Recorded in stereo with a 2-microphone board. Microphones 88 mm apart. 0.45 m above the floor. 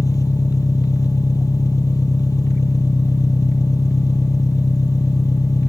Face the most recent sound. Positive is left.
turn(degrees=40)  # may be behind; listen again after turning